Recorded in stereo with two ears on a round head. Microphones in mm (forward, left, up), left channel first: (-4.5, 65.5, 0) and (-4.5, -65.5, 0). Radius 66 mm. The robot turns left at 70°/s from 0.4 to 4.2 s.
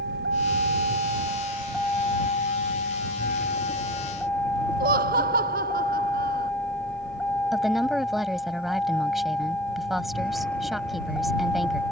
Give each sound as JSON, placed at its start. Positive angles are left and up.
{"t": 0.0, "sound": "a vehicle", "azimuth_deg": -85}
{"t": 4.8, "sound": "laughter", "side_deg": -70}
{"t": 7.5, "sound": "a woman speaking", "side_deg": 0}